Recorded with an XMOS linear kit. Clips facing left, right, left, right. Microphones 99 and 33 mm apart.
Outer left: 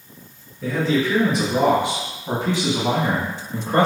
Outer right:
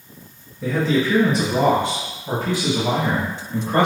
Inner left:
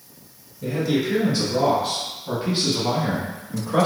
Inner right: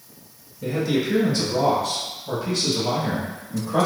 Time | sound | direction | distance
0.6 | a man speaking | 15° right (ahead or behind) | 1.3 m